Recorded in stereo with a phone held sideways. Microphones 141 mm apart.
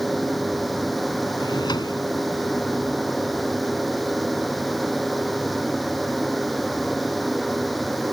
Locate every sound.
0.0 s a fan: centre (ahead or behind)
1.4 s a drawer: 30° left (ahead or behind)